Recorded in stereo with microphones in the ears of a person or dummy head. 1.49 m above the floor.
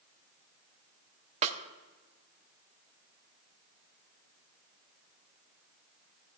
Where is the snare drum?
30° right (ahead or behind), 0.6 m.